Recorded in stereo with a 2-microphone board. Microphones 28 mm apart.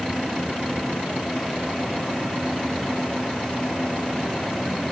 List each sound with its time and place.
Only background noise.